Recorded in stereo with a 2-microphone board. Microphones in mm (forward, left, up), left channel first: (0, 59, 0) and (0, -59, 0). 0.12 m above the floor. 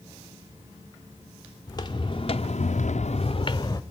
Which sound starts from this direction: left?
Footsteps, at 1.7 s.